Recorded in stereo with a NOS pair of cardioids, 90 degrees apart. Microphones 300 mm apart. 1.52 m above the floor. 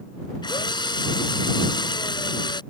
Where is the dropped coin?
No dropped coin in this recording.